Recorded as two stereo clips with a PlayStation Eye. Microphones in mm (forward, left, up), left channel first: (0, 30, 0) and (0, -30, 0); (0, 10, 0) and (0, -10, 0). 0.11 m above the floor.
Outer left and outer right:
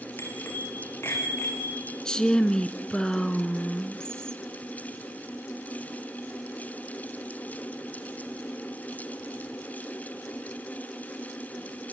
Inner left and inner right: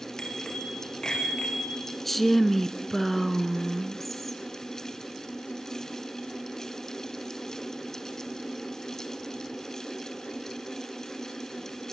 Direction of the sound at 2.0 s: 15° left (ahead or behind).